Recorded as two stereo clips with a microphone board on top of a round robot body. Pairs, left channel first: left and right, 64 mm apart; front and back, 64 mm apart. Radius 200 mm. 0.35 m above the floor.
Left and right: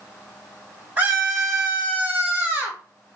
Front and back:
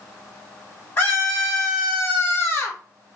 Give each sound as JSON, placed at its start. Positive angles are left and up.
{"t": 1.0, "sound": "a scream", "azimuth_deg": -45, "distance_m": 1.7}